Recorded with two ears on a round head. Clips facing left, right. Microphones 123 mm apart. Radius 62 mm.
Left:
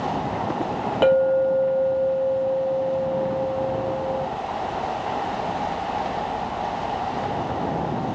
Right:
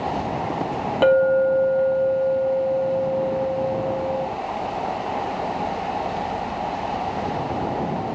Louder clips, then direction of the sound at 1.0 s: Right 1 dB; centre (ahead or behind).